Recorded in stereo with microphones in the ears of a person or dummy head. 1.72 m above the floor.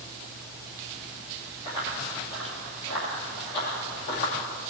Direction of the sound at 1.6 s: 25° left (ahead or behind).